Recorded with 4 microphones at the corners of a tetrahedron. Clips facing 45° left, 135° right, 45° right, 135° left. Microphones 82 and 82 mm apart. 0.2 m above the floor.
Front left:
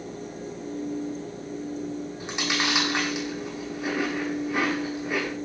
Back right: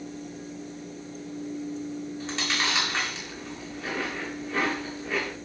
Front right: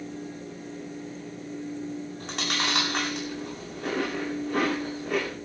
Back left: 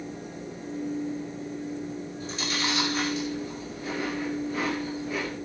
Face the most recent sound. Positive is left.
turn(degrees=-30)